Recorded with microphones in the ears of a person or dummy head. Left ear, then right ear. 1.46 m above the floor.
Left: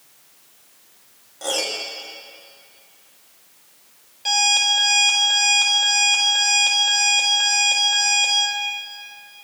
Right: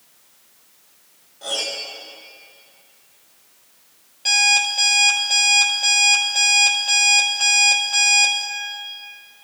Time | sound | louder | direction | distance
1.4 | a piano | left 1 dB | 45° left (ahead or behind) | 2.5 m
4.2 | an alarm clock | right 1 dB | 5° right (ahead or behind) | 3.5 m